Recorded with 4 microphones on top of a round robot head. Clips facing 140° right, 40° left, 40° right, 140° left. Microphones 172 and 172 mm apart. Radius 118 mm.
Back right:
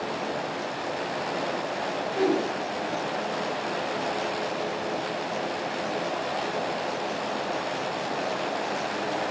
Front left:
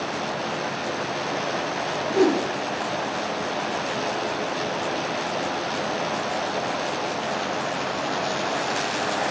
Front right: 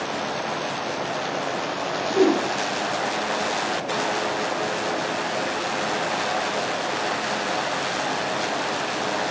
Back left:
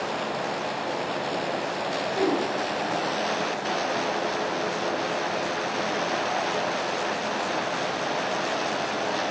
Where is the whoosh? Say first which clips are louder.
Front left 5 dB, front right 7 dB; straight ahead, 6 m.